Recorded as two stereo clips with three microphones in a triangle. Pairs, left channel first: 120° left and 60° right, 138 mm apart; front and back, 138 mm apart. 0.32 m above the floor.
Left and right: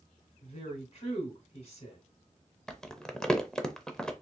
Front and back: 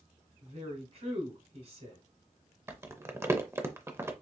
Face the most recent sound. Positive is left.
turn(degrees=-165)